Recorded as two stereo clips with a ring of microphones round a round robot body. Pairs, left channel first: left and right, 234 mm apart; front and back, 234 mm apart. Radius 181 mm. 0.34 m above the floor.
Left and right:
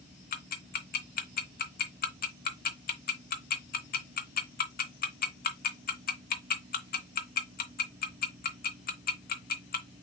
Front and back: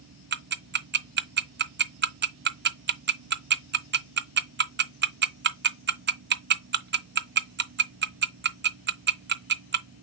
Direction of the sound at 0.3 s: 135° left.